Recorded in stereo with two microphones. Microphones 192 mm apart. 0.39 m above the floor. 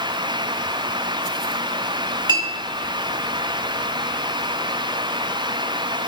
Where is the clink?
25° right (ahead or behind), 1.1 m.